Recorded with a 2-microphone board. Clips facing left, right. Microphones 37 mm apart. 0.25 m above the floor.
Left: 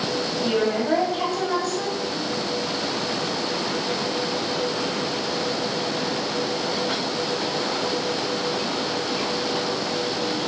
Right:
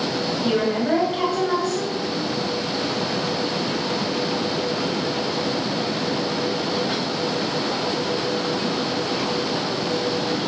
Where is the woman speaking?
20° right (ahead or behind), 1.0 m.